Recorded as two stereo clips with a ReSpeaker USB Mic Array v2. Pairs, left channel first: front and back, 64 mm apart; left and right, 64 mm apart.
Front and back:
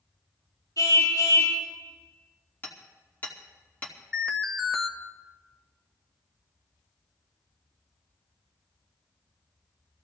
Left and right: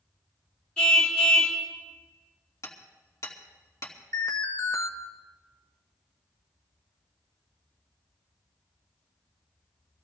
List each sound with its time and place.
0.8 s a car horn: 10° left, 7.5 m
2.6 s hammering: 60° left, 2 m
4.1 s an alarm: 85° left, 1.9 m